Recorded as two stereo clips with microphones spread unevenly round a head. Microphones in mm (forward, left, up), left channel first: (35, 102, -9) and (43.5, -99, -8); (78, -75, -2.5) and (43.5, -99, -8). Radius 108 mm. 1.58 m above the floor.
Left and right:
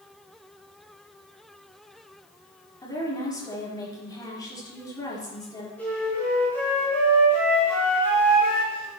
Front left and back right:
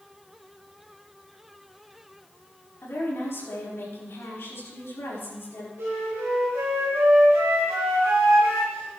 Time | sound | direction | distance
2.8 | a woman speaking | 20° left | 4.5 m
5.8 | a flute | 175° left | 5 m